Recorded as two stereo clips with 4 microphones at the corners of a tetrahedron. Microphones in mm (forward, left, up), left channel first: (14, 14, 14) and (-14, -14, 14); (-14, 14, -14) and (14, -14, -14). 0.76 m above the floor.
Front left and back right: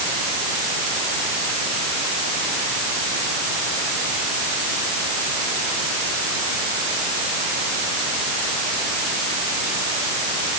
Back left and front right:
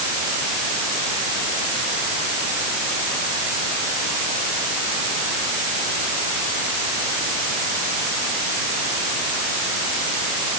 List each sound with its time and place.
Only background noise.